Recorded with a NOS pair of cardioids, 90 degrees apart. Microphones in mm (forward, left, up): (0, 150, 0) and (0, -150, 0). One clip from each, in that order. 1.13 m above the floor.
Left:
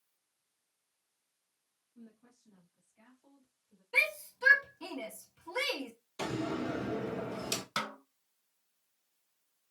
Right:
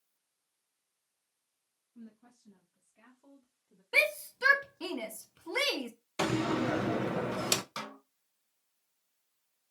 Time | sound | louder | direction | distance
1.9 | a woman speaking | right 3 dB | 60° right | 2.5 m
3.9 | a shout | right 2 dB | 50° right | 1.1 m
6.2 | a door slam | right 5 dB | 55° right | 0.7 m
7.8 | a snare drum | left 5 dB | 35° left | 1.1 m